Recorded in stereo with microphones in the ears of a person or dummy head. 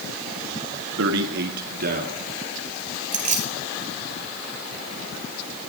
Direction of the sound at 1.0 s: 75° right (ahead or behind).